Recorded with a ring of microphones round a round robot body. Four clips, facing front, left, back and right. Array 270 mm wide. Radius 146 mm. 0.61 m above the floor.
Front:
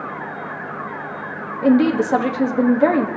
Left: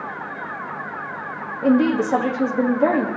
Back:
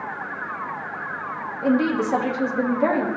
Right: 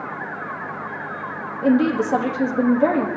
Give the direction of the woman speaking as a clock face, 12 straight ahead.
12 o'clock.